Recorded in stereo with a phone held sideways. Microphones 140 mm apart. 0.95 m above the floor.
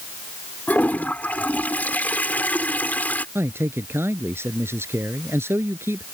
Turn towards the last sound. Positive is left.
turn(degrees=-15)  # may be behind; listen again after turning